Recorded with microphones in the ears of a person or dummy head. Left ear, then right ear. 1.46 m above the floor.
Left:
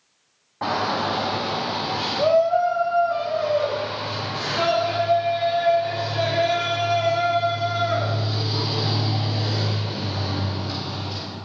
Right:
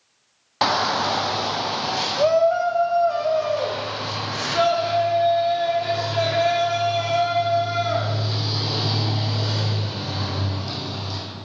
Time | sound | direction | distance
0.6 | a shout | 70° right (ahead or behind) | 0.6 m